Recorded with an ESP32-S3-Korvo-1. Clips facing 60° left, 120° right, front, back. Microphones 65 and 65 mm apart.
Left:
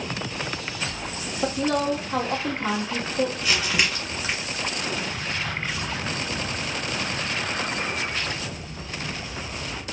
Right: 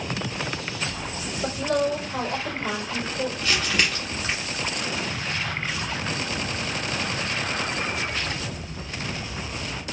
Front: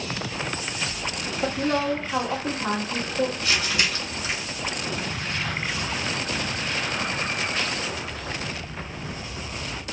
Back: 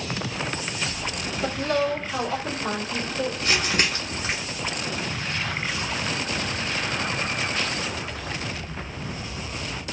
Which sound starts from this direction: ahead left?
A woman speaking, at 1.4 s.